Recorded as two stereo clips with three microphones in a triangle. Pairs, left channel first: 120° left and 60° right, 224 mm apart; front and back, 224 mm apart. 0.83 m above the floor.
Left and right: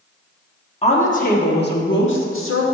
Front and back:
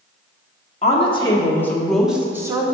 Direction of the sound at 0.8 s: 60° left.